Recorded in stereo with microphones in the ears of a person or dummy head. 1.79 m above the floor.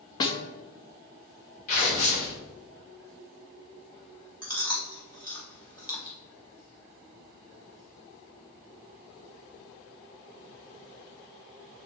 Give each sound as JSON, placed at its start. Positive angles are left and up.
{"t": 0.2, "sound": "a snare drum", "side_deg": 25, "distance_m": 1.0}
{"t": 1.7, "sound": "tearing paper", "side_deg": 45, "distance_m": 2.0}
{"t": 4.4, "sound": "chewing", "side_deg": 25, "distance_m": 2.0}